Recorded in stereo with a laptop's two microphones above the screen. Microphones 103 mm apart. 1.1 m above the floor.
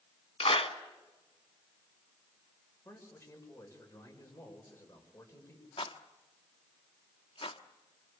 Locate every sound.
0.4 s a clap: 70° left (ahead or behind), 1.3 m
2.9 s a man speaking: 25° left (ahead or behind), 5.5 m
5.8 s a rattle: 60° left (ahead or behind), 1.0 m